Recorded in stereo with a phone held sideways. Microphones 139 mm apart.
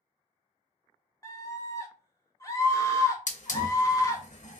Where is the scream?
25° left (ahead or behind), 1.0 m.